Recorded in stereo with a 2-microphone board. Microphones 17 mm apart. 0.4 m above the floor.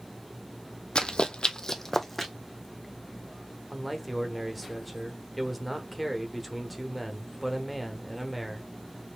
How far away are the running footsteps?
About 0.9 m.